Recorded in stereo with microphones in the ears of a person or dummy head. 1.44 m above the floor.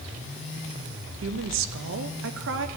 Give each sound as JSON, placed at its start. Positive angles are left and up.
{"t": 1.2, "sound": "a woman speaking", "side_deg": -60, "distance_m": 0.6}